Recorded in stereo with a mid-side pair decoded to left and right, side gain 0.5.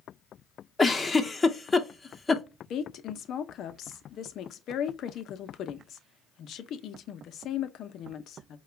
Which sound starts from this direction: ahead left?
A woman speaking, at 2.7 s.